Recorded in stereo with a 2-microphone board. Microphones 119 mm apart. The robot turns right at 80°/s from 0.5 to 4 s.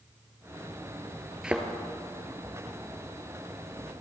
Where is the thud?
5° right (ahead or behind), 0.9 m; by 1.7 s 20° right (ahead or behind), 0.9 m.